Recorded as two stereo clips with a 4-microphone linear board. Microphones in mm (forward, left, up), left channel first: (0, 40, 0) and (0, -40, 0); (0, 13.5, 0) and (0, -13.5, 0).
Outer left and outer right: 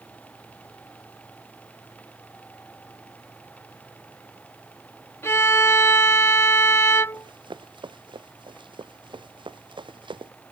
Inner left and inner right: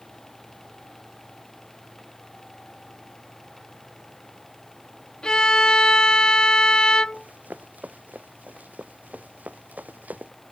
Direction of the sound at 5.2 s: 35° left (ahead or behind).